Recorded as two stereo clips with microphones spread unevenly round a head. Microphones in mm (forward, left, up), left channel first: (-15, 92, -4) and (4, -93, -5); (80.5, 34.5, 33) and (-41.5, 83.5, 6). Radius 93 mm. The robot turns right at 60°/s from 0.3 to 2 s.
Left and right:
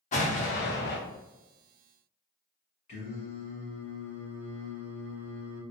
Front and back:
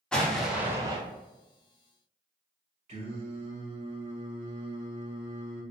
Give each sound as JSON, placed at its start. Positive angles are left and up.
{"t": 0.1, "sound": "an explosion", "azimuth_deg": 55, "distance_m": 0.6}
{"t": 2.9, "sound": "singing", "azimuth_deg": 125, "distance_m": 1.6}